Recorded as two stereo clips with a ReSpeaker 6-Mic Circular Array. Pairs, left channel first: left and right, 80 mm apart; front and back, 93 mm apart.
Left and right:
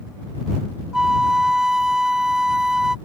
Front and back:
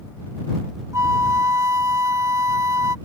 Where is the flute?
170° right.